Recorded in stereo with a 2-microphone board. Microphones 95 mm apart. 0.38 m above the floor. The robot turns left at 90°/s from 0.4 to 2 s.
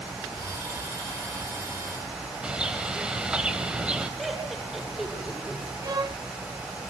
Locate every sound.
2.4 s a bird: 10° right (ahead or behind), 1.4 m
4.2 s laughter: centre (ahead or behind), 5 m
5.8 s a violin: 40° right (ahead or behind), 0.8 m